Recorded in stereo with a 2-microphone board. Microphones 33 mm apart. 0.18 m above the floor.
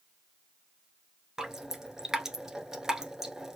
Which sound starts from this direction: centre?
Dripping, at 1.4 s.